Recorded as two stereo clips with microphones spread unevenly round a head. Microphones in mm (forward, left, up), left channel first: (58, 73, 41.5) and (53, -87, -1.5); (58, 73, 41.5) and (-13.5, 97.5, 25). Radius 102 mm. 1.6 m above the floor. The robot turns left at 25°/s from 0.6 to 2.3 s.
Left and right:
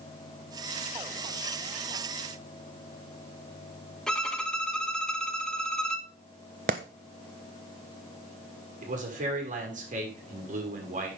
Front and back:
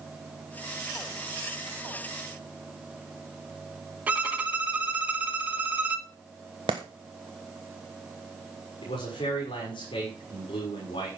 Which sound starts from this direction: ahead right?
A man speaking, at 8.8 s.